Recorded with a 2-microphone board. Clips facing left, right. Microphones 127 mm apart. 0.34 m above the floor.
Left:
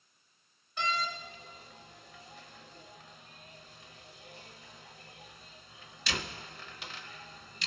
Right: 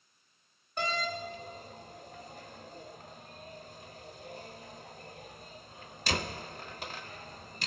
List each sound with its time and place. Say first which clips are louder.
0.8 s a door slam: right 1 dB; 45° right (ahead or behind), 1.0 m